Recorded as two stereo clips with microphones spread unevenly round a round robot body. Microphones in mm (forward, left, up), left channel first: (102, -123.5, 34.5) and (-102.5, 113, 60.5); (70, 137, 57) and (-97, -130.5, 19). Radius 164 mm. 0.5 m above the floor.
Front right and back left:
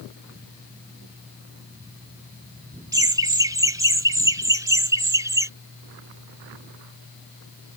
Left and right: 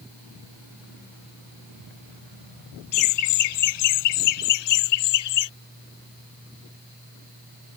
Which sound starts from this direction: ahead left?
Laughter, at 2.9 s.